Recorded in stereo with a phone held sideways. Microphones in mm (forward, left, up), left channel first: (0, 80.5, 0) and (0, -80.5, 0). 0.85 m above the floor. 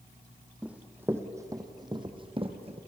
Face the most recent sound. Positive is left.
turn(degrees=-40)  # may be behind; listen again after turning